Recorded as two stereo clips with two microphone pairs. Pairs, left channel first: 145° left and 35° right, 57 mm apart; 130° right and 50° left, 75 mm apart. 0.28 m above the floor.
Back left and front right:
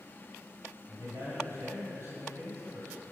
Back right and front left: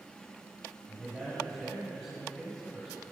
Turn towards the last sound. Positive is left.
turn(degrees=-45)